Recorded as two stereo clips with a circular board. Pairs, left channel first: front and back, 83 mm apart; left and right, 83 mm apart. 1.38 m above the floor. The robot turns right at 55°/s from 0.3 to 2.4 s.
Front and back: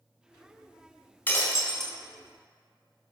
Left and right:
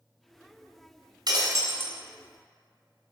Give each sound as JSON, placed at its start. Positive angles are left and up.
{"t": 1.3, "sound": "breaking glass", "azimuth_deg": -65, "distance_m": 3.0}